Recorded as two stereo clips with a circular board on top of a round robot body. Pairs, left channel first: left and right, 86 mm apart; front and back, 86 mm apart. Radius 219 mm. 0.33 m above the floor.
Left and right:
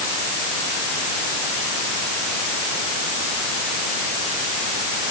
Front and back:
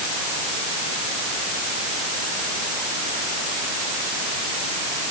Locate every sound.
Only background noise.